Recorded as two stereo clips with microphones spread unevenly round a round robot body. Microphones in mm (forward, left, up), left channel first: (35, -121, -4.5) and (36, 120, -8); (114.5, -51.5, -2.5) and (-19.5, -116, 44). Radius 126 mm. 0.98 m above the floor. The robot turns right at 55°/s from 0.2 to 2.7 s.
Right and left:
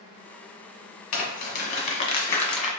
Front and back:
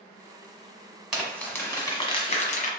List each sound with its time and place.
1.1 s crumpling: 85° right, 1.3 m; by 2.7 s 5° left, 1.3 m